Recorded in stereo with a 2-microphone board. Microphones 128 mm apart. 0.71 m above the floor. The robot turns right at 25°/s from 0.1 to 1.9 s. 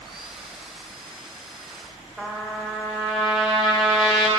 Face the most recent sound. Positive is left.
turn(degrees=-5)  # may be behind; listen again after turning